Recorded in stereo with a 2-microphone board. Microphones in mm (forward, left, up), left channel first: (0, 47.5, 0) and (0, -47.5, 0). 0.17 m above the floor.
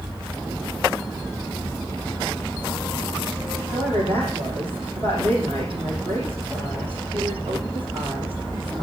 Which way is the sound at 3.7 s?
65° right (ahead or behind).